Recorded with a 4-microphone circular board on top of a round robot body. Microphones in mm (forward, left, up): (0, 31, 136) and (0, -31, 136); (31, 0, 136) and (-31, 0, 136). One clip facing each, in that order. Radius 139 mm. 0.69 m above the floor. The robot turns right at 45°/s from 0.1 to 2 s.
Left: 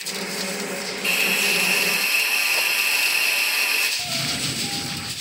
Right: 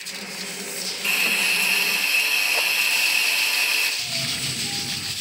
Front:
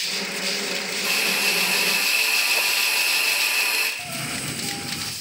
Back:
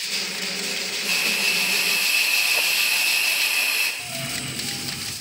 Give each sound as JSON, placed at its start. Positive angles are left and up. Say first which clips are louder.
{"t": 1.0, "sound": "a hiss", "louder": "even, even", "azimuth_deg": -5, "distance_m": 3.0}
{"t": 4.0, "sound": "a cough", "louder": "left 2 dB, front 1 dB", "azimuth_deg": 55, "distance_m": 1.6}